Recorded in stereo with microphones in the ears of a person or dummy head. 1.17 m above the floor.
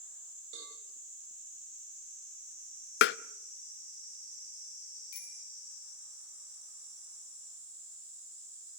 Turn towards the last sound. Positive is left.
turn(degrees=60)  # may be behind; listen again after turning